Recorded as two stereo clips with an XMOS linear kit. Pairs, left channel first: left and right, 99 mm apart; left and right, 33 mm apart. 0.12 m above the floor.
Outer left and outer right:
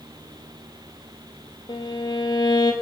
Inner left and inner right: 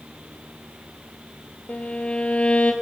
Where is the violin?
45° left (ahead or behind), 1.7 m.